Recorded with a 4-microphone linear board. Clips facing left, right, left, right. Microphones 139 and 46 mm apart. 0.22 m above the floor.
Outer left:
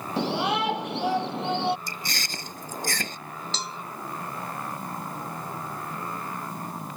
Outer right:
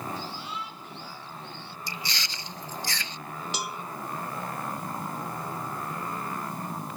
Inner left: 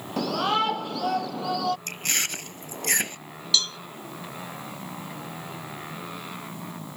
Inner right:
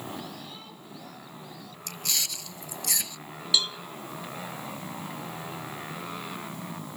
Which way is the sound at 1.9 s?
50° left (ahead or behind).